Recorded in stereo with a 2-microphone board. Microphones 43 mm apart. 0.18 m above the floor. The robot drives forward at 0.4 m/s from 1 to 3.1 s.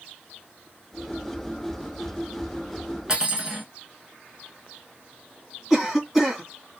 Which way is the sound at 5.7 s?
5° right (ahead or behind).